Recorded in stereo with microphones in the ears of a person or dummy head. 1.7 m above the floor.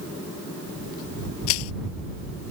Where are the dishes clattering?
I don't hear dishes clattering.